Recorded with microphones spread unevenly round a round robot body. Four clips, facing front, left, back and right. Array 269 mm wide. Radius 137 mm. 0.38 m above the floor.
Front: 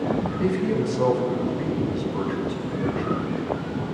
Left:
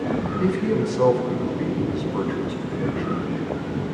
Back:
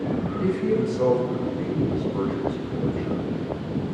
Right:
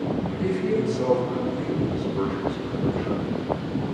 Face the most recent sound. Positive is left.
turn(degrees=55)